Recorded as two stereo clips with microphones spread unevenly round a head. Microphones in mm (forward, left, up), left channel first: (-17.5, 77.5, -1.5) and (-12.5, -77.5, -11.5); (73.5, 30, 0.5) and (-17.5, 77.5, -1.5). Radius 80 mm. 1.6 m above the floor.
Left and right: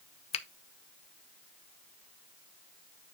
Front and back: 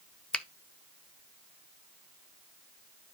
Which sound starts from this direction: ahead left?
A finger snap, at 0.3 s.